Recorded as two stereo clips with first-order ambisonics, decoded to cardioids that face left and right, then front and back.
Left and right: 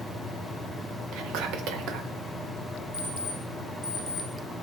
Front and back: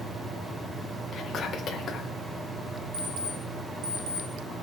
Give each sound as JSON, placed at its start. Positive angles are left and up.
{"t": 1.1, "sound": "whispering", "azimuth_deg": -60, "distance_m": 1.8}
{"t": 2.9, "sound": "an alarm clock", "azimuth_deg": 170, "distance_m": 3.0}